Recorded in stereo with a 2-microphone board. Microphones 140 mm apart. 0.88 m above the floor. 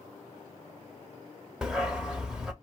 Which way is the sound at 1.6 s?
5° right (ahead or behind).